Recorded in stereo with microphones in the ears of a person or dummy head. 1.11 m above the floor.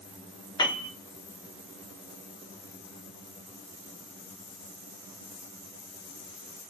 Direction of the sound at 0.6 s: 25° left (ahead or behind).